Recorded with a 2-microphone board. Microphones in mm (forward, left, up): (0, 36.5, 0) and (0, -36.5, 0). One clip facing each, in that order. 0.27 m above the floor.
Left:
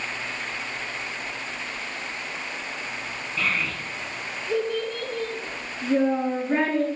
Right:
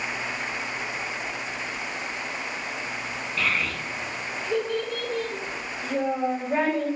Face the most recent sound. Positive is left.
turn(degrees=55)  # may be behind; listen again after turning